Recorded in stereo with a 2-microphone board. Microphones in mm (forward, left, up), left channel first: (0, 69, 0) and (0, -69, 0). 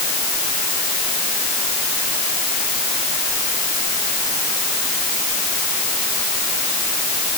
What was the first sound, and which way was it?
Only background noise.